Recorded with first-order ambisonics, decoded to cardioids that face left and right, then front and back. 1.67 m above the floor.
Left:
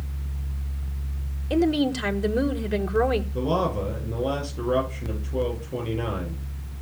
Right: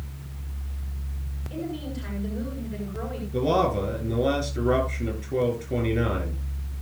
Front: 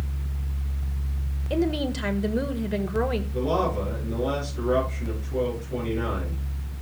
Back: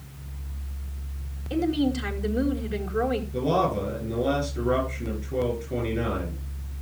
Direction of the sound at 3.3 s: 100° right.